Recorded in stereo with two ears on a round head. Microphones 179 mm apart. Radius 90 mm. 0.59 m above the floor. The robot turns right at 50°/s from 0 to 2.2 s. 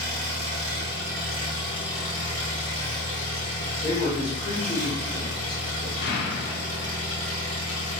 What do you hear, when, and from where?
0.0 s an engine running: 100° right, 1.4 m; by 8.0 s 10° left, 1.4 m
3.8 s a man speaking: 20° left (ahead or behind), 1.5 m
6.0 s an explosion: 50° left (ahead or behind), 0.7 m